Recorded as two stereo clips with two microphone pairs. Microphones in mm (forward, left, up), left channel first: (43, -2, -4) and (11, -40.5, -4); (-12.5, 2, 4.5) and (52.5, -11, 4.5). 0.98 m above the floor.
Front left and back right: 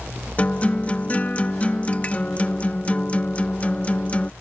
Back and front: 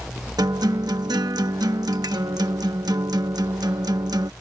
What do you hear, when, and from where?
0.4 s a guitar: 10° right